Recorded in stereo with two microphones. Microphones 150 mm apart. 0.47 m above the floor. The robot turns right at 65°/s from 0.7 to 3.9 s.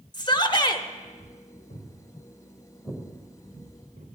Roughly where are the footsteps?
Left.